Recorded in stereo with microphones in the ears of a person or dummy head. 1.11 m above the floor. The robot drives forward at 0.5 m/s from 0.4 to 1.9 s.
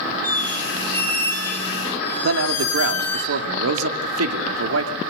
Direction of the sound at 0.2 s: 10° left (ahead or behind).